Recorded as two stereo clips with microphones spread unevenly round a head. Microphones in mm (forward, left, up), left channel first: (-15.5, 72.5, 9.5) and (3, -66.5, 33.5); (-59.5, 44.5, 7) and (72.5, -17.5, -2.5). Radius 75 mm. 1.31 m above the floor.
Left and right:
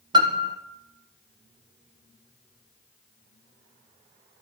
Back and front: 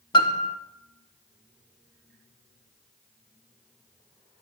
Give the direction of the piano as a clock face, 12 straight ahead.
5 o'clock.